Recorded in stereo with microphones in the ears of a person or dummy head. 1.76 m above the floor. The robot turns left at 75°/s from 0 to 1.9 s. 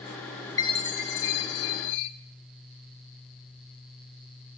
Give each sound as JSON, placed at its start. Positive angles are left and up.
{"t": 0.6, "sound": "a chime", "azimuth_deg": 165, "distance_m": 0.7}